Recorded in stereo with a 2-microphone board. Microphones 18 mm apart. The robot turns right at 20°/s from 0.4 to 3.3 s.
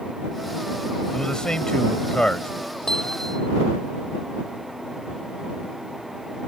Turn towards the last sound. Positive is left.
turn(degrees=40)  # may be behind; listen again after turning